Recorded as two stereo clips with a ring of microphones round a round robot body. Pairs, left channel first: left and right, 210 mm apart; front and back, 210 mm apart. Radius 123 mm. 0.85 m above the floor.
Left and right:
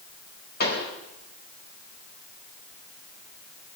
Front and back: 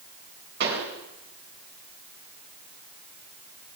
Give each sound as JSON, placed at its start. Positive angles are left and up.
{"t": 0.6, "sound": "a pop", "azimuth_deg": 135, "distance_m": 4.0}